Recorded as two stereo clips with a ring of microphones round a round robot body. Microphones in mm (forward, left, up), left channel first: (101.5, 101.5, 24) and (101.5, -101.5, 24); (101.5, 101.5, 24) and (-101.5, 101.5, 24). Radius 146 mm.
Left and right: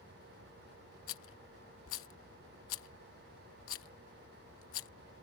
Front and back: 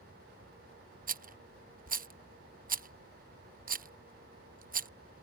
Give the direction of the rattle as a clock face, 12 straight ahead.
8 o'clock.